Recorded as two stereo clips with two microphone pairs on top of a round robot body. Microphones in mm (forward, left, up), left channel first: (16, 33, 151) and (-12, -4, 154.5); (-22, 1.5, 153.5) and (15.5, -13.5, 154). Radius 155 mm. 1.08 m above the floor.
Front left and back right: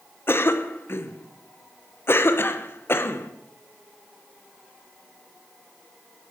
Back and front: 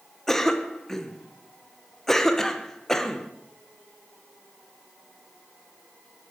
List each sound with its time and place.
0.3 s a cough: 80° left, 1.1 m